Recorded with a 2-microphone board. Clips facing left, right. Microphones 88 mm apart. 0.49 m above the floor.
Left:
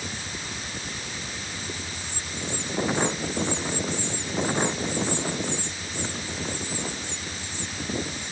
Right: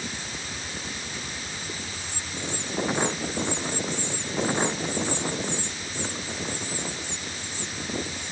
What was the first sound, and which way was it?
Only background noise.